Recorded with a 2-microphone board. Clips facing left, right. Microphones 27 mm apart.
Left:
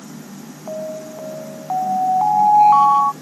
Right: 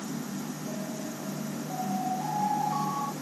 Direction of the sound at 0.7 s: 60° left (ahead or behind).